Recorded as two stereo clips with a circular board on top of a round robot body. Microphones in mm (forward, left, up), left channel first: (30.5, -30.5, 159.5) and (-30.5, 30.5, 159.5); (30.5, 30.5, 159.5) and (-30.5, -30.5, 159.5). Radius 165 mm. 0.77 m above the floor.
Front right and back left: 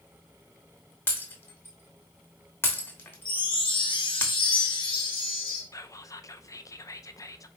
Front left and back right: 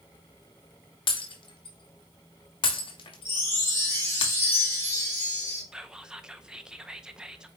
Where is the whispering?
60° right, 0.7 m.